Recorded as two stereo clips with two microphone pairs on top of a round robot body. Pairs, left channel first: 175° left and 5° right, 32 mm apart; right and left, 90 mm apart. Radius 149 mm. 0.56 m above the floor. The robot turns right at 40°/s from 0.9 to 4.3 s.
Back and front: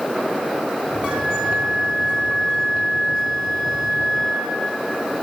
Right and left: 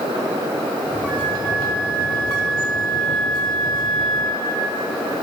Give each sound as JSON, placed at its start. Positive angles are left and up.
{"t": 1.1, "sound": "a flute", "azimuth_deg": 50, "distance_m": 4.0}